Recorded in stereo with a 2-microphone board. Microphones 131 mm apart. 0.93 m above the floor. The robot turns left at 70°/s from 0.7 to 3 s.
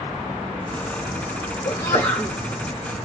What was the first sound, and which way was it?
A sneeze, 40° left.